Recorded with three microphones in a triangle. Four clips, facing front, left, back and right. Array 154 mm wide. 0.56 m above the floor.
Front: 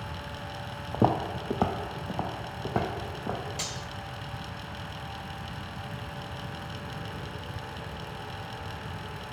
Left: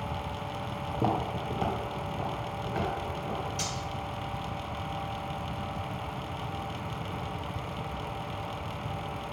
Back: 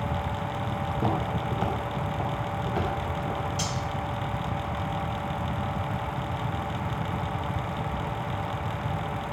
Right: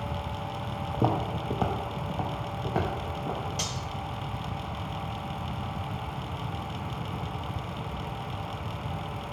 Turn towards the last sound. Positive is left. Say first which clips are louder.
# even, back 7 dB
turn(degrees=-70)